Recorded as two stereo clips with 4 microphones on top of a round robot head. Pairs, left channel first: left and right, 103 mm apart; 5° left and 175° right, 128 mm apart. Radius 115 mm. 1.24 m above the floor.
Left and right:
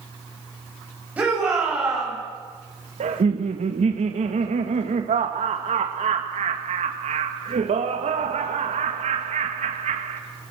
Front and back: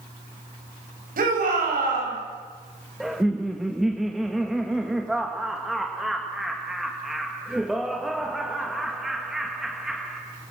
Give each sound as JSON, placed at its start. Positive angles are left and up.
{"t": 1.2, "sound": "a shout", "azimuth_deg": -170, "distance_m": 8.0}
{"t": 3.0, "sound": "laughter", "azimuth_deg": -85, "distance_m": 1.5}